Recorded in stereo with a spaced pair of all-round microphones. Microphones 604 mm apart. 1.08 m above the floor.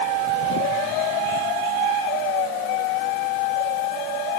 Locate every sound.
Only background noise.